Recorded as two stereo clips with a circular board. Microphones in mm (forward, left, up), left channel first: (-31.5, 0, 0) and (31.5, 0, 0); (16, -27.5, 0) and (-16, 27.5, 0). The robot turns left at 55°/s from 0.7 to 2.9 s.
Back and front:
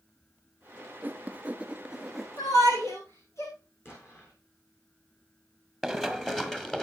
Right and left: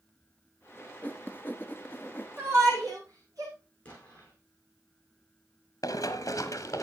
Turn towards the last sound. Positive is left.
turn(degrees=-100)